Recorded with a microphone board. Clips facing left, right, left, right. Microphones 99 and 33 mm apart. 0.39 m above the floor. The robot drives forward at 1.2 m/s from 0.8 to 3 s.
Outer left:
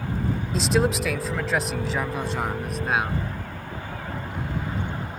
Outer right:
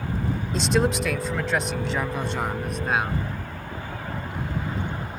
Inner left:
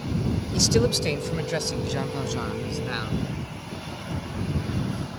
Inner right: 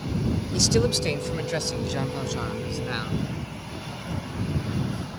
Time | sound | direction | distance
0.5 | a man speaking | centre (ahead or behind) | ?